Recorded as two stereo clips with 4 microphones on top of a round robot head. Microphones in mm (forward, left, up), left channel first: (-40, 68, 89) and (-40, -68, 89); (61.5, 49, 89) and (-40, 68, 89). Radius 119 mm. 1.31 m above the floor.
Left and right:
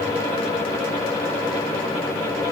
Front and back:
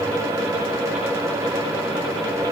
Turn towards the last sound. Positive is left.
No sound to turn to.